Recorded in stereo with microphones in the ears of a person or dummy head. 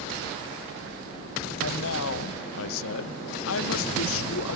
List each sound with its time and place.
1.6 s a man speaking: 75° left (ahead or behind), 0.7 m